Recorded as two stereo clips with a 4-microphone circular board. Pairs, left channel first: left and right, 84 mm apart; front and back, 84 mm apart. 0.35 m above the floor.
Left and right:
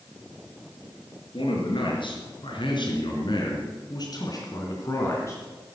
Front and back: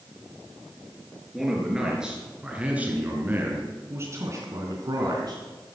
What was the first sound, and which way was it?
A man speaking, 95° left.